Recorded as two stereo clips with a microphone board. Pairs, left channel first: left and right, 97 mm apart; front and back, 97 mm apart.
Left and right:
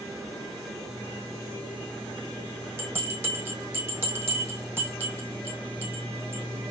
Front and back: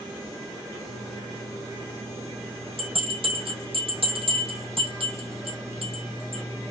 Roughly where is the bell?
Behind.